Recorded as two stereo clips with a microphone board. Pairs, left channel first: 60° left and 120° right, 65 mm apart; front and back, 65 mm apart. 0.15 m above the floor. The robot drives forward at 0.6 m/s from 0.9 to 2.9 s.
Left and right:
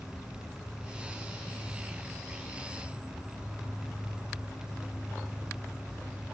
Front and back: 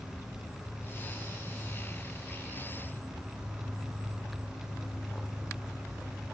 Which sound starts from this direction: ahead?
An insect, at 0.0 s.